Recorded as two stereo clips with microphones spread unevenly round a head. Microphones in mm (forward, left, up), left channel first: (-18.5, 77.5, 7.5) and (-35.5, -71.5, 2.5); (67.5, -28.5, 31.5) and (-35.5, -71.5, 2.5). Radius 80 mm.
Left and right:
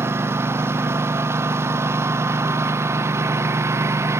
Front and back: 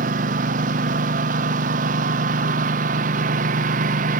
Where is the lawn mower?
170° right.